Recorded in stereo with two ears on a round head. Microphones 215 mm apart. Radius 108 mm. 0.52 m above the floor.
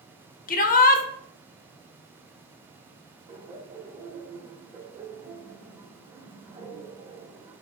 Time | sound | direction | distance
0.5 | a shout | 35° left (ahead or behind) | 0.8 m
3.3 | laughter | 20° right (ahead or behind) | 1.6 m